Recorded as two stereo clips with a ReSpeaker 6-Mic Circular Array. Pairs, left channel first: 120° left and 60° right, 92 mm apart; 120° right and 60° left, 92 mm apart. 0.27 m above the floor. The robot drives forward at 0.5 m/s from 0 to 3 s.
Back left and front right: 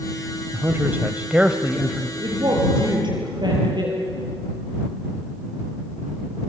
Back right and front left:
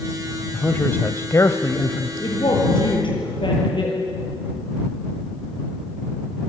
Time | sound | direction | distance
0.5 | a man speaking | 70° right | 1.0 m
2.2 | a woman speaking | 90° right | 7.5 m